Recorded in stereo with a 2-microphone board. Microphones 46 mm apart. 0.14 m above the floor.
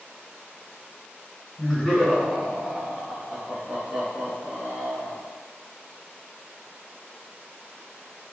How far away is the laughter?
About 1.5 m.